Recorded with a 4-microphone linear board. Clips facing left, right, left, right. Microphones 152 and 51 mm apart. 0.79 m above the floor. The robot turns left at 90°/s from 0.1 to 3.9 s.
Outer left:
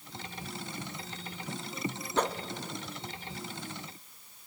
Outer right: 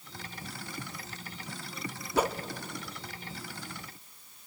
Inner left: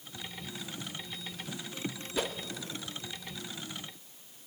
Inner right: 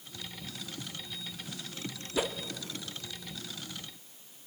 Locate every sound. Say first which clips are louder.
2.1 s a whoosh: outer right 2 dB, inner right 3 dB; 10° right (ahead or behind), 0.7 m; by 2.4 s centre (ahead or behind), 0.7 m